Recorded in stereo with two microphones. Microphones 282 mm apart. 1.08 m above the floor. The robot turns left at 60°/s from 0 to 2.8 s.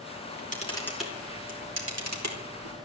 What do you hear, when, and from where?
0.2 s a camera shutter: 50° left (ahead or behind), 4.5 m; by 2.8 s 70° right (ahead or behind), 4.5 m